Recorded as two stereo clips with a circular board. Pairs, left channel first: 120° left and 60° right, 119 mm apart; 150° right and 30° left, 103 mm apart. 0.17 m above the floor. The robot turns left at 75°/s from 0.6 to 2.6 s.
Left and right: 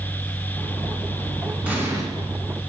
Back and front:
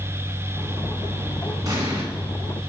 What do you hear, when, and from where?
1.6 s an explosion: 10° left, 1.7 m; by 2.0 s 15° right, 1.7 m